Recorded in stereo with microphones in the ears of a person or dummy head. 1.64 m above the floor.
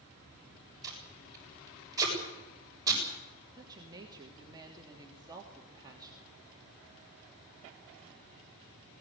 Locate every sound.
0.8 s tape being pulled: 20° right (ahead or behind), 7.5 m
3.6 s a woman speaking: 20° right (ahead or behind), 3 m